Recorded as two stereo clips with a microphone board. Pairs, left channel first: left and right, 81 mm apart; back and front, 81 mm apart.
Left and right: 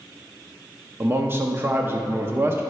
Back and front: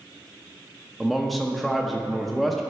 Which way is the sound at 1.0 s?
90° right.